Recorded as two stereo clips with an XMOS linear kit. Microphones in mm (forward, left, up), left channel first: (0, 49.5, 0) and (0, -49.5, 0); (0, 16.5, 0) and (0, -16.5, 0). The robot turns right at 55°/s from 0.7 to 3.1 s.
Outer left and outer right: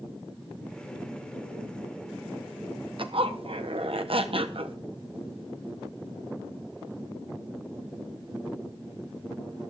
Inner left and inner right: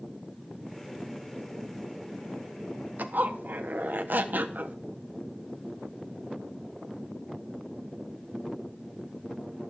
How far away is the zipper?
About 1.2 m.